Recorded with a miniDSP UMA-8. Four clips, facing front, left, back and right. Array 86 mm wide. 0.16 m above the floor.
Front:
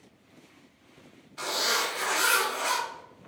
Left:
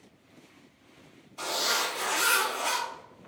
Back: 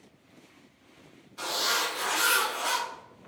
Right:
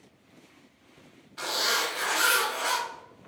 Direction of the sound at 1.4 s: 70° right.